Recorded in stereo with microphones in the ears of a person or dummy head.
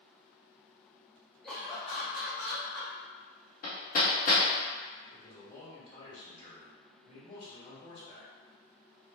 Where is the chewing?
I don't hear chewing.